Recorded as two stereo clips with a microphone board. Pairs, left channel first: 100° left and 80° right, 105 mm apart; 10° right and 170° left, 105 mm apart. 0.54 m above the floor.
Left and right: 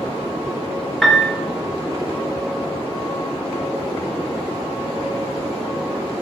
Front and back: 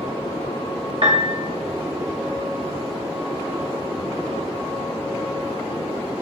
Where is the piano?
170° right, 1.2 m.